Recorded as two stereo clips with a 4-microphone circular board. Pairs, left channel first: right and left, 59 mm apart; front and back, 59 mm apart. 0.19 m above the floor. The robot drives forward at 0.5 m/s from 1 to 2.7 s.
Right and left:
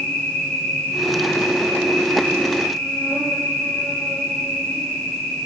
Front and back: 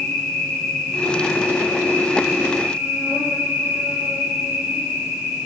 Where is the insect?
65° right, 1.3 m; by 5.5 s 125° right, 1.4 m.